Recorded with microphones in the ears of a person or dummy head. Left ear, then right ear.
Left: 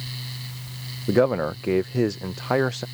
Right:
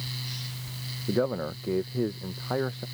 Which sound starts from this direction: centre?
A fan, at 0.0 s.